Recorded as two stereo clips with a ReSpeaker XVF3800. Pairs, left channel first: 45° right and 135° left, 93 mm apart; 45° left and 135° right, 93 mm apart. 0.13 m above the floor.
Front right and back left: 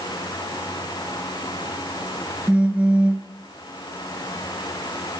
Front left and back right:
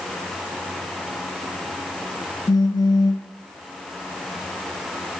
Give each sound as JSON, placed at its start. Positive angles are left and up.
{"t": 2.5, "sound": "a phone buzzing", "azimuth_deg": 60, "distance_m": 1.4}